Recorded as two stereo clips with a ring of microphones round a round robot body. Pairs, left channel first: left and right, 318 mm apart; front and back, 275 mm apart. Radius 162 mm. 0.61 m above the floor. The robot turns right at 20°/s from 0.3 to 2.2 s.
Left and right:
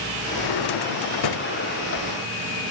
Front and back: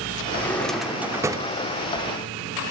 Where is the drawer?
80° left, 0.8 m; by 1.5 s 105° left, 0.8 m.